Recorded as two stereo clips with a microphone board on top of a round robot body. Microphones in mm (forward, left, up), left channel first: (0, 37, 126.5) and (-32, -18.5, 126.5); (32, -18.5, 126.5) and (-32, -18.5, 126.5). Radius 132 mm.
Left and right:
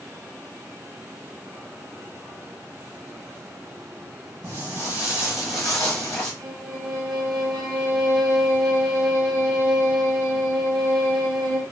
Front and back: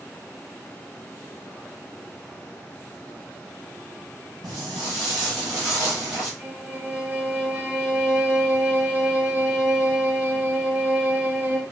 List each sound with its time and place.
4.4 s footsteps: 165° right, 1.8 m; by 6.3 s 125° left, 1.6 m
6.4 s a violin: 115° right, 1.1 m